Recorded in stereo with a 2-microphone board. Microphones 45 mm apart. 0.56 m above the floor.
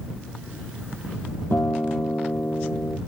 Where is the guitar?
60° left (ahead or behind).